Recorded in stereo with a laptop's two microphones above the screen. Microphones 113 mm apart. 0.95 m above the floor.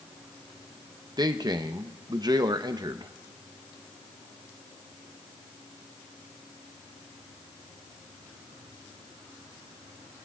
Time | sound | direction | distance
1.2 | a man speaking | 35° right (ahead or behind) | 0.7 m